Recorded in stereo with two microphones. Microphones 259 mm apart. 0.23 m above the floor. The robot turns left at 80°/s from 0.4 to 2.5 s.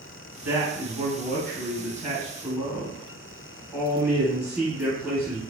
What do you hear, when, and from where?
0.4 s a man speaking: 10° right, 1.7 m; by 5.4 s 175° right, 1.7 m